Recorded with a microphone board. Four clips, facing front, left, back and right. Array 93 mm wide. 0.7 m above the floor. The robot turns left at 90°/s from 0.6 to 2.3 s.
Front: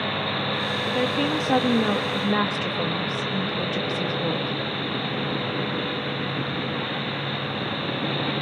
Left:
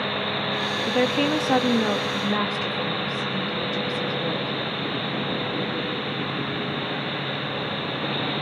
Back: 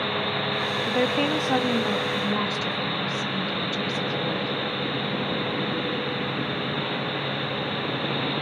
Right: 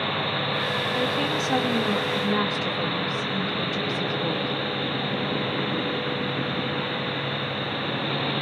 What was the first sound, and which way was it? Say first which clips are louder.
A woman speaking: left 7 dB, even; 140° left.